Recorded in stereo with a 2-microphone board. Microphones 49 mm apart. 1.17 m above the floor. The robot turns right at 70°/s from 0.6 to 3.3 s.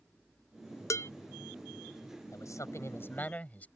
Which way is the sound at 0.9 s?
75° left (ahead or behind).